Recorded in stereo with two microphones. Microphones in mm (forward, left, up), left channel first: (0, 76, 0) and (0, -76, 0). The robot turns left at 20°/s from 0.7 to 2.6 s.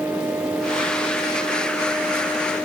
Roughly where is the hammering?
No hammering in this recording.